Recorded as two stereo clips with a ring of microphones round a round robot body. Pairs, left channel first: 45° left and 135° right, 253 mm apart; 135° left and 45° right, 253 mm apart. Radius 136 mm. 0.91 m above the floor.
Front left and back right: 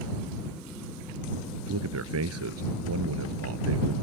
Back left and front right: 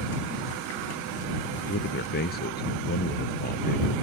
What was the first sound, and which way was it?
A man speaking, 170° right.